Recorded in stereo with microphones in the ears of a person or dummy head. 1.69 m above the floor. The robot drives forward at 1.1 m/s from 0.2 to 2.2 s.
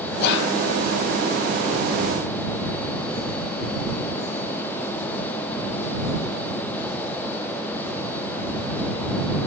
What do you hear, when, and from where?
0.2 s whispering: 55° left (ahead or behind), 0.6 m; by 0.5 s 65° left (ahead or behind), 0.6 m